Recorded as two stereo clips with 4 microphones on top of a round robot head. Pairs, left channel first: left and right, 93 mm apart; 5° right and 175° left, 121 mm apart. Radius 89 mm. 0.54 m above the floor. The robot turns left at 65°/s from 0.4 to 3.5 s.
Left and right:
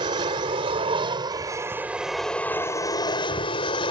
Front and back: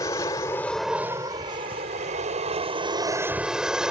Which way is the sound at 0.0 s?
65° right.